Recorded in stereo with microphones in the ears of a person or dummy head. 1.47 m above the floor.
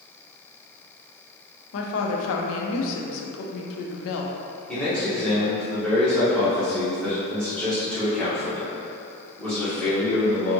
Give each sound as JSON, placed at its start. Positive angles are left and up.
{"t": 1.7, "sound": "a woman speaking", "side_deg": 70, "distance_m": 0.6}
{"t": 4.7, "sound": "a man speaking", "side_deg": 5, "distance_m": 1.4}